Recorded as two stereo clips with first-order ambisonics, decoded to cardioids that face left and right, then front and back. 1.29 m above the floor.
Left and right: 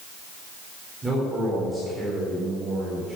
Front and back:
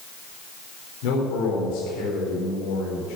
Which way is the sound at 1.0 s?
10° right.